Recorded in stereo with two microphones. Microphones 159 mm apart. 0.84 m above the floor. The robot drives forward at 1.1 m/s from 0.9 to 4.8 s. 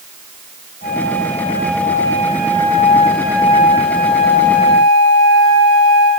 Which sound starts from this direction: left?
A flute, at 0.8 s.